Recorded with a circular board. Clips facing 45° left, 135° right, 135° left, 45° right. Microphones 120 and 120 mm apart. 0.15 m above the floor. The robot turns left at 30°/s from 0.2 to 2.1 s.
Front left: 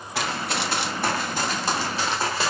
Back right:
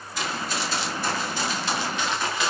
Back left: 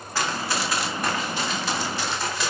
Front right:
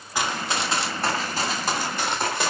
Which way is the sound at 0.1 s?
30° left.